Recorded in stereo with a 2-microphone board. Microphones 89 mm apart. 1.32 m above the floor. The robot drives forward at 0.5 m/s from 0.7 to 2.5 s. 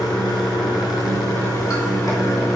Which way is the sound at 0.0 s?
45° left (ahead or behind).